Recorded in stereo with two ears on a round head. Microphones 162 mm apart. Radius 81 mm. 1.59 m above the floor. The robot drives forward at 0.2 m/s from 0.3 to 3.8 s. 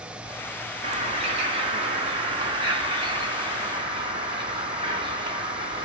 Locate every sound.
0.8 s a bird: 35° right (ahead or behind), 1.9 m; by 5.8 s 30° right (ahead or behind), 2.5 m